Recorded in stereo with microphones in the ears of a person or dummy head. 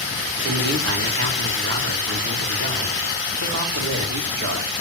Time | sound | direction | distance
0.4 | a man speaking | 65° right (ahead or behind) | 3.5 m